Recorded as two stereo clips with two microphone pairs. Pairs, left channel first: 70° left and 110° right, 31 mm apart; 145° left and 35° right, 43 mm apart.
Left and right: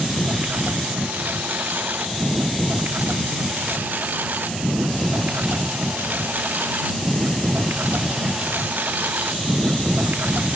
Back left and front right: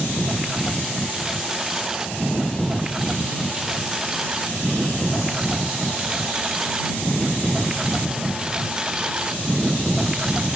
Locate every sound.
0.0 s a lawn mower: 115° right; by 10.6 s 105° right